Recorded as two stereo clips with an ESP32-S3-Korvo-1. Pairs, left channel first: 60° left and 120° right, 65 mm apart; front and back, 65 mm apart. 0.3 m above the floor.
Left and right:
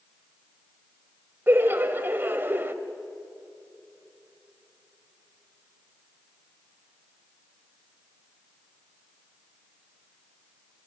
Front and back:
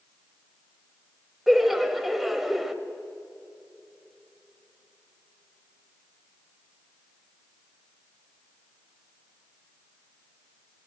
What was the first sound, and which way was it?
Laughter, 90° right.